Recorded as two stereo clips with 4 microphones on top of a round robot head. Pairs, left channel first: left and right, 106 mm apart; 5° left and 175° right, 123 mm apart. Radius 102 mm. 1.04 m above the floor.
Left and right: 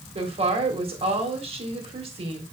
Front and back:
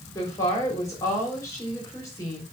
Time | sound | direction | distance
0.1 | a woman speaking | 60° right | 4 m